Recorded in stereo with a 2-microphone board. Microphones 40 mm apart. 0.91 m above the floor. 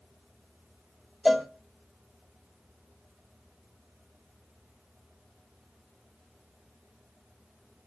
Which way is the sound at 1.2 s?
5° right (ahead or behind).